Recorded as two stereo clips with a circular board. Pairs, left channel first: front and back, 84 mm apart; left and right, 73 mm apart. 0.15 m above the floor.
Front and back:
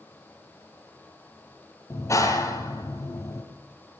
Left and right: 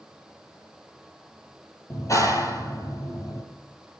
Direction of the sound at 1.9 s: 50° left.